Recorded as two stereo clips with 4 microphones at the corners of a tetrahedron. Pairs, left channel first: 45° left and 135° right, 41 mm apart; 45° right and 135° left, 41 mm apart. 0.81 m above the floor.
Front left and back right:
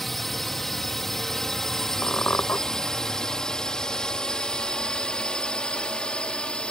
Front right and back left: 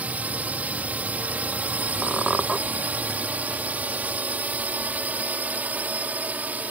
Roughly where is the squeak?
Ahead left.